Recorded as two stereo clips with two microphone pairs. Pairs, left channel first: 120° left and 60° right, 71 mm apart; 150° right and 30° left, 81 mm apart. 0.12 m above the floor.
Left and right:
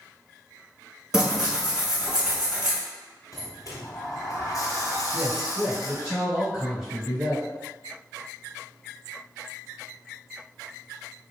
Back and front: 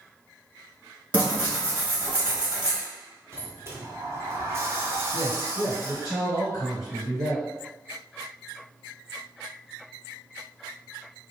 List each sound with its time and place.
1.1 s tearing paper: straight ahead, 1.0 m
3.3 s a sliding door: 85° left, 0.7 m
5.1 s a man speaking: 130° right, 2.0 m